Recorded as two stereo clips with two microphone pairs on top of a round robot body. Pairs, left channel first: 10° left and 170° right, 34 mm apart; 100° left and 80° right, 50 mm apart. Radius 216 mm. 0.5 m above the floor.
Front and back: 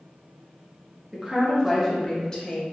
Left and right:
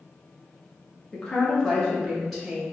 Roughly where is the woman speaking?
Behind left.